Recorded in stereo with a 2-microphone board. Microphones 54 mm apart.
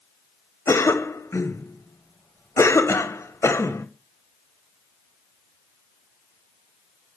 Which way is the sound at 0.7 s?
65° left (ahead or behind).